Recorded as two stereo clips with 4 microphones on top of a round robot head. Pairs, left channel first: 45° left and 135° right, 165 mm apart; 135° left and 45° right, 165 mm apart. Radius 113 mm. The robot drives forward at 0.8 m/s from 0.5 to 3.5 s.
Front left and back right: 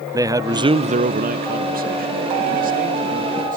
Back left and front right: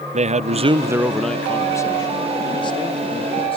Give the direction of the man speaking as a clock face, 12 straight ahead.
2 o'clock.